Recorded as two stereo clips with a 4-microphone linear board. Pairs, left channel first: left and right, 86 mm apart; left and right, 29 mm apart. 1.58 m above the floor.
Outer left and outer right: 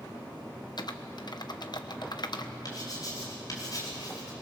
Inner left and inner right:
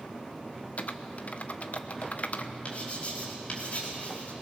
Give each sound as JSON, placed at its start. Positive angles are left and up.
{"t": 0.8, "sound": "typing on a keyboard", "side_deg": 55, "distance_m": 1.0}
{"t": 2.6, "sound": "writing", "side_deg": 50, "distance_m": 4.5}